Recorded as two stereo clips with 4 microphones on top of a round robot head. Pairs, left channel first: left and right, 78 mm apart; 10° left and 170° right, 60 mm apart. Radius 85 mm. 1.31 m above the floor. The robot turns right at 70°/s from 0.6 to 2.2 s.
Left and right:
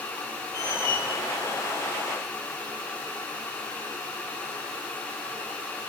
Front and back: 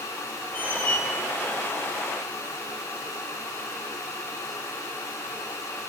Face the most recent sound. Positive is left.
turn(degrees=170)